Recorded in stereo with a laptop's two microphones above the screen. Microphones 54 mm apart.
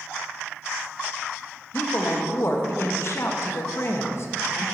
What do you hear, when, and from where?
1.7 s a woman speaking: 55° left (ahead or behind), 0.8 m